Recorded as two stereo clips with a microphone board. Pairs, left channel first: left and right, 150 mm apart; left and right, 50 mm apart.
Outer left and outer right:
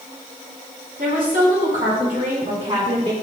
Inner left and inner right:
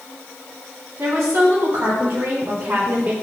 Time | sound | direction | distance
1.0 | a woman speaking | 75° right (ahead or behind) | 3.5 m